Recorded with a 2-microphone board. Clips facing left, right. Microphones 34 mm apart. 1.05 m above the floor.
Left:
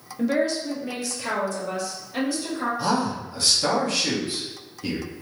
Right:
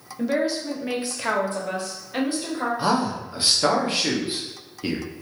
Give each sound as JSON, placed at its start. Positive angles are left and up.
{"t": 0.2, "sound": "a woman speaking", "side_deg": 0, "distance_m": 0.5}
{"t": 2.8, "sound": "a man speaking", "side_deg": -30, "distance_m": 0.9}